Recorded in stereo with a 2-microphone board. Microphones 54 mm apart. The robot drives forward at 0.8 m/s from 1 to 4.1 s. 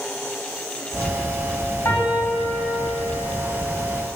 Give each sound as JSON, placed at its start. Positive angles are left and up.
{"t": 1.9, "sound": "a piano", "side_deg": 50, "distance_m": 1.2}